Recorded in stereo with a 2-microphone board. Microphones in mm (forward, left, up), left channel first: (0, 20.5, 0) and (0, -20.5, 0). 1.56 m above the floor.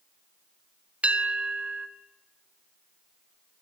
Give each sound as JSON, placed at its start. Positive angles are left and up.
{"t": 1.0, "sound": "a bell", "side_deg": -35, "distance_m": 1.5}